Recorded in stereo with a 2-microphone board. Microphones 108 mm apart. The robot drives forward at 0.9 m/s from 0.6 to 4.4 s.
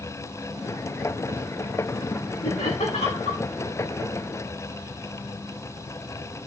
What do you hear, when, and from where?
2.4 s laughter: 75° left (ahead or behind), 9 m; by 3.4 s 70° left (ahead or behind), 9 m